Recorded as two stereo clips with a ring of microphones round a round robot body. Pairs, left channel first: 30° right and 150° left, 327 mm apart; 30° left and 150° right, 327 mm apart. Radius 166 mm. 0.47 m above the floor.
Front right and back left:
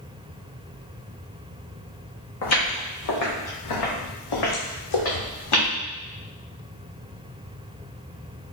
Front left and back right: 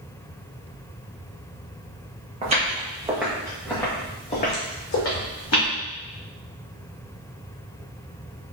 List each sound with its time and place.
2.4 s footsteps: 80° right, 1.7 m; by 5.7 s 15° right, 1.7 m